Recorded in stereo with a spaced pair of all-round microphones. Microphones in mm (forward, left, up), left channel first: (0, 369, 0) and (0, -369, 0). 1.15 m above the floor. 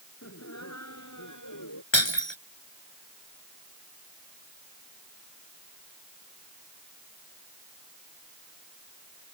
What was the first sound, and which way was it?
Laughter, 20° left (ahead or behind).